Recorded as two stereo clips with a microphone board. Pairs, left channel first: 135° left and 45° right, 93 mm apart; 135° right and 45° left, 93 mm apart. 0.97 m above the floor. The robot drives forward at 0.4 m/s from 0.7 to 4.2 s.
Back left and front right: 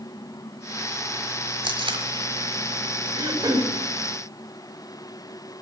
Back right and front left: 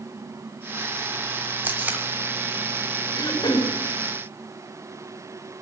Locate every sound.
1.6 s tape being pulled: 25° right, 1.5 m
3.1 s throat clearing: 90° right, 2 m; by 3.8 s 95° right, 2 m